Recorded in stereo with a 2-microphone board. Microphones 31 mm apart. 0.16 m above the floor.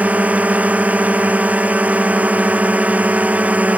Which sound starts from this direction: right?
A drone, at 0.0 s.